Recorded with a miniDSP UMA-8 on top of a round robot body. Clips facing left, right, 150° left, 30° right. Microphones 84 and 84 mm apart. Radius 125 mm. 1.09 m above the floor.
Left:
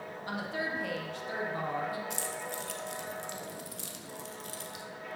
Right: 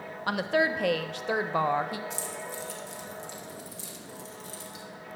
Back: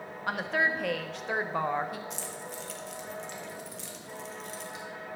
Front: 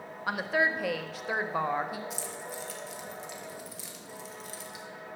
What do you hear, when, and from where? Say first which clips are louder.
0.3 s a woman speaking: right 10 dB, front 1 dB; 120° right, 0.6 m
2.1 s keys jangling: right 1 dB, front 1 dB; 55° left, 0.8 m